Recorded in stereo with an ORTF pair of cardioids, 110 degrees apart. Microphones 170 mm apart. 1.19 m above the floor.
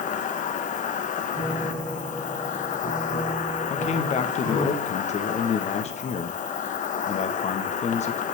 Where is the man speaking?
40° left, 1.0 m.